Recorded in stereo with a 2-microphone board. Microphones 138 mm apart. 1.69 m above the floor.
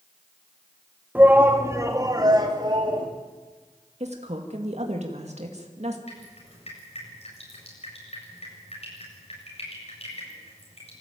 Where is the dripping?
55° left (ahead or behind), 7.5 m.